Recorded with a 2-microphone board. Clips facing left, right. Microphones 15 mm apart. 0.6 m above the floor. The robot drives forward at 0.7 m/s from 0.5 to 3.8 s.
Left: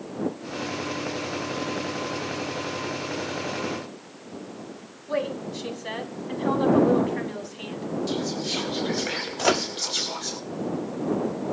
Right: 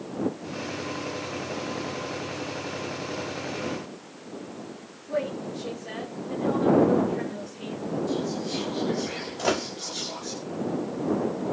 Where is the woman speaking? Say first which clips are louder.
Left 1 dB; 75° left (ahead or behind), 5.5 m.